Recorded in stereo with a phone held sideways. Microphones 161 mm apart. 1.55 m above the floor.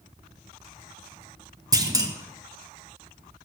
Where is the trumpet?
I don't hear a trumpet.